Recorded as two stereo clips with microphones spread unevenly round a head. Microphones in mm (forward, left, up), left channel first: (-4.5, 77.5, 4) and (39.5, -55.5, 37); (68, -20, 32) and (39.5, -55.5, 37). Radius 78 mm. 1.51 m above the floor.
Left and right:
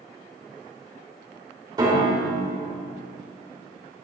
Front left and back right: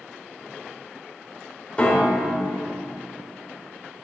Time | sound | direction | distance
1.8 | a piano | 15° right | 2.5 m